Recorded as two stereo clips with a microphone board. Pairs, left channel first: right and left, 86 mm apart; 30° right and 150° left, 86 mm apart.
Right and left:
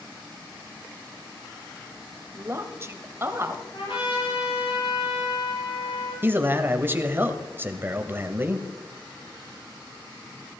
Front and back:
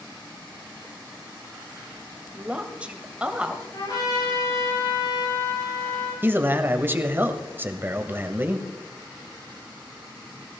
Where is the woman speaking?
90° left, 1.5 m.